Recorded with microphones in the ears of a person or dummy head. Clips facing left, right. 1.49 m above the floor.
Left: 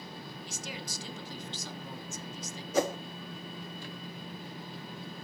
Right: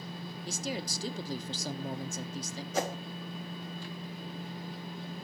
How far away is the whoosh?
About 0.7 m.